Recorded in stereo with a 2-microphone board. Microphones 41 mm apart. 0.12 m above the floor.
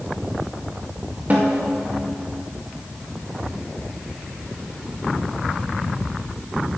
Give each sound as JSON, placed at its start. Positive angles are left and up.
{"t": 1.3, "sound": "a snare drum", "side_deg": -40, "distance_m": 2.5}